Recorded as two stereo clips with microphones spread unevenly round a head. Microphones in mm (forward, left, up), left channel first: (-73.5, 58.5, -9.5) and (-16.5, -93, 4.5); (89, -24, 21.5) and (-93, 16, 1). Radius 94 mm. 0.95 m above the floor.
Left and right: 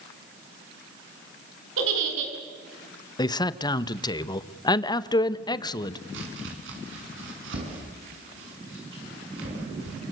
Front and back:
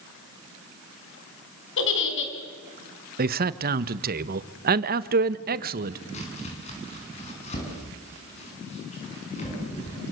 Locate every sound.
1.8 s a giggle: 40° right, 4 m
3.2 s a man speaking: 165° left, 1.1 m
6.1 s chopping: 70° right, 8 m